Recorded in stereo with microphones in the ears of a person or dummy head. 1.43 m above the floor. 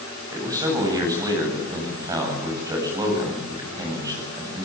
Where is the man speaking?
15° right (ahead or behind), 8.5 m.